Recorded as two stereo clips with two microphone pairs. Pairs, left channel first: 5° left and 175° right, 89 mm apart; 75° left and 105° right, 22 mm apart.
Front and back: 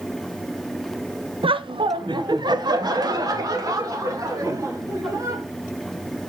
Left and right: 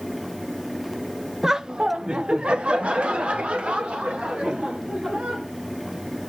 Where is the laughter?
175° right, 0.6 m; by 5.4 s 125° right, 3.5 m.